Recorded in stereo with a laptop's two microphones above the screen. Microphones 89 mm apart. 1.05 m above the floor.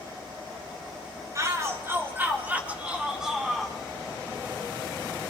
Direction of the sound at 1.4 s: 40° right (ahead or behind).